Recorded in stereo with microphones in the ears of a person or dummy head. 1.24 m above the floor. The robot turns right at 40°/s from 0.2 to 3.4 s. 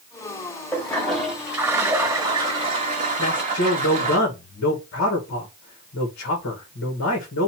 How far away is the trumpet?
I don't hear a trumpet.